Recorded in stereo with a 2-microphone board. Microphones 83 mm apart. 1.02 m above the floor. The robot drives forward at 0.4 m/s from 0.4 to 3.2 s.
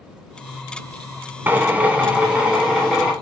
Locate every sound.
1.5 s a drill: 20° right (ahead or behind), 0.5 m; by 3.1 s 10° right (ahead or behind), 1.1 m